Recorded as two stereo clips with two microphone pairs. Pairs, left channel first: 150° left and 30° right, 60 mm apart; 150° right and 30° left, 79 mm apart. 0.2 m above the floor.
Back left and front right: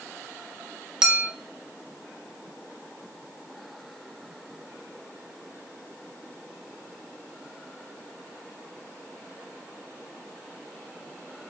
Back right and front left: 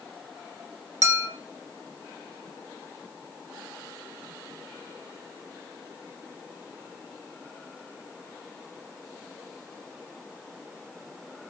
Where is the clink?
45° left, 0.7 m.